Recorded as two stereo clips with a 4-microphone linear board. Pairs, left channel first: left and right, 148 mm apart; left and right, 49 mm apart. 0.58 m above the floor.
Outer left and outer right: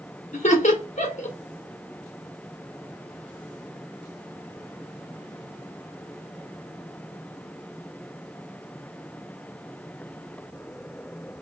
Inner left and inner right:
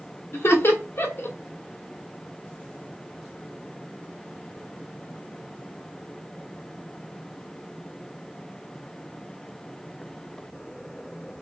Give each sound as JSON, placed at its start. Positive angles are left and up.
{"t": 0.3, "sound": "laughter", "side_deg": 50, "distance_m": 1.3}